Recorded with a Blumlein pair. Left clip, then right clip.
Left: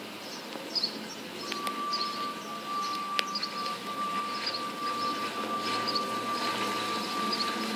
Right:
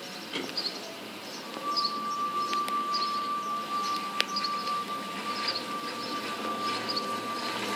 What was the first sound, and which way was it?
A flute, 30° left.